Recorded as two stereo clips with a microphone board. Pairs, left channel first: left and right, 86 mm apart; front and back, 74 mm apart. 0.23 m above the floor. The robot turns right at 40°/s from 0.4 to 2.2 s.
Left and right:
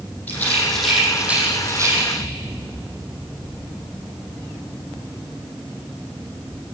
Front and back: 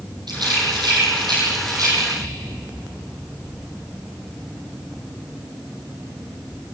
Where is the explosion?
135° right, 3 m.